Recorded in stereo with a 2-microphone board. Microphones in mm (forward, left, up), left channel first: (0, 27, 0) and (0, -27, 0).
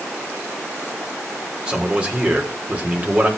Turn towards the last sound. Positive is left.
turn(degrees=-30)  # may be behind; listen again after turning